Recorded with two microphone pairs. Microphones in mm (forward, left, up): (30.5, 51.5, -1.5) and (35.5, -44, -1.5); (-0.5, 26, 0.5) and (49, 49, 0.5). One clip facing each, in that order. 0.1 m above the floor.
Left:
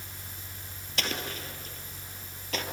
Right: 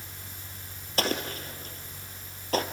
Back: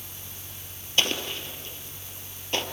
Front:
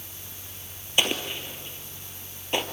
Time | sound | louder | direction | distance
1.0 | an explosion | right 5 dB, front 1 dB | 45° right | 2 m